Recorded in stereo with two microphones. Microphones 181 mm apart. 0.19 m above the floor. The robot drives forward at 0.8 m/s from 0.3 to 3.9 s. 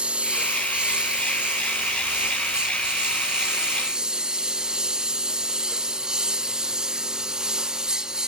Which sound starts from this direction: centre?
A lawn mower, at 0.0 s.